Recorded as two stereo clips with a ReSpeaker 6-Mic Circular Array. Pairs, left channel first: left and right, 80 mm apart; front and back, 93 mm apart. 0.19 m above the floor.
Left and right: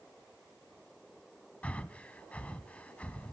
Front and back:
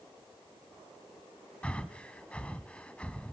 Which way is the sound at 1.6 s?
50° left.